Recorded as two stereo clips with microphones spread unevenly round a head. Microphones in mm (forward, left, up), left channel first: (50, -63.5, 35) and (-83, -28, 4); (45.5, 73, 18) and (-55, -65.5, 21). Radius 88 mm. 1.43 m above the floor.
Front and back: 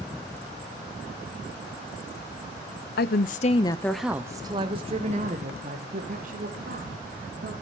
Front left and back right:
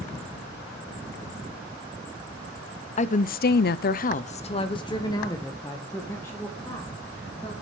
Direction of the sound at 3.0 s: 5° left.